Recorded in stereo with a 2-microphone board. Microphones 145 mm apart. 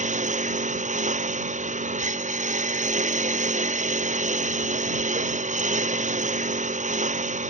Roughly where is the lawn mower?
Right.